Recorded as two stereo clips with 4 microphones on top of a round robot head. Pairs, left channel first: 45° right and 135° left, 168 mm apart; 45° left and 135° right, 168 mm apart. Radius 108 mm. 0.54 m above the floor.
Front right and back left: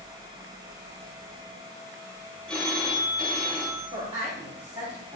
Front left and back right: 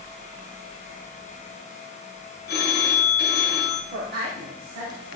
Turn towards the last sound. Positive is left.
turn(degrees=-170)